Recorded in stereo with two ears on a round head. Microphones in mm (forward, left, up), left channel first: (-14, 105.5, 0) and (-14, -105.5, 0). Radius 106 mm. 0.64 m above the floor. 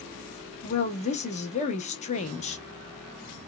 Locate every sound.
0.6 s a woman speaking: 30° left (ahead or behind), 0.7 m